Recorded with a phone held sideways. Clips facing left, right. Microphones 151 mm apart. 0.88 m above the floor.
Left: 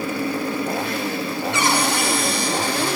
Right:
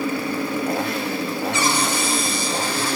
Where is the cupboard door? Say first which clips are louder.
Left 4 dB; 60° left (ahead or behind), 3.5 m.